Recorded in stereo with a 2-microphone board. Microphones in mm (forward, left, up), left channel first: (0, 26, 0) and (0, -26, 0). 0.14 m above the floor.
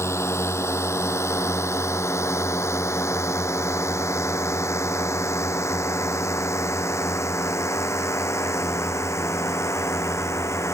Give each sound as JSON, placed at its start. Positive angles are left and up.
{"t": 0.0, "sound": "a drone", "side_deg": 70}